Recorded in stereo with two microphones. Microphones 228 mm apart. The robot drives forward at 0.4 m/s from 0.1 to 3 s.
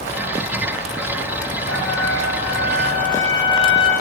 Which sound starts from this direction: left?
A trumpet, at 1.7 s.